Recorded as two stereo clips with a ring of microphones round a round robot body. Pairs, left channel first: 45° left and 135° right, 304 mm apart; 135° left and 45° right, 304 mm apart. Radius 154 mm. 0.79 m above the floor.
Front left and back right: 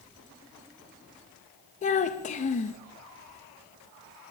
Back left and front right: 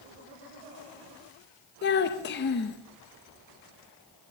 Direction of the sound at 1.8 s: 100° left.